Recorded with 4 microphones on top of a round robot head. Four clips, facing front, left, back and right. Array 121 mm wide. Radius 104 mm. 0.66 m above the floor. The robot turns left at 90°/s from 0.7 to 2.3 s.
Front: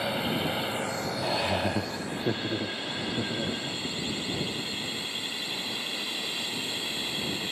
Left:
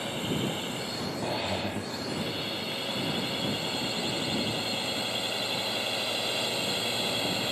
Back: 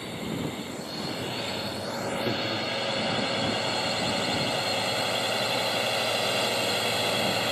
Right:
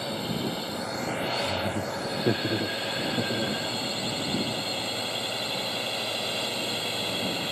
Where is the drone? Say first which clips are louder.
Right 1 dB, front 3 dB; 20° right; by 7.5 s 175° left.